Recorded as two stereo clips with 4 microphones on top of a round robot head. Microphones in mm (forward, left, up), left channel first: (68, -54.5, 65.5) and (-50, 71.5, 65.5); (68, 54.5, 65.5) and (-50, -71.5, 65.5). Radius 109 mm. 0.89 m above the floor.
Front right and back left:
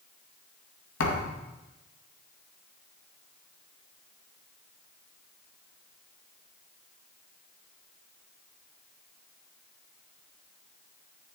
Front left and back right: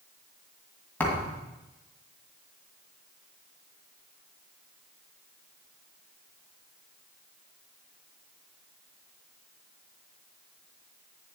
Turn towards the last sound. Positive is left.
turn(degrees=-35)